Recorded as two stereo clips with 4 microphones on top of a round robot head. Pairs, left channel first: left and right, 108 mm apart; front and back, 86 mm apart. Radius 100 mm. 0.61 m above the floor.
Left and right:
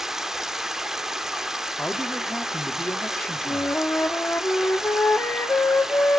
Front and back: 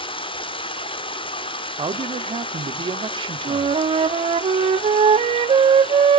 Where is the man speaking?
170° left, 1.6 m.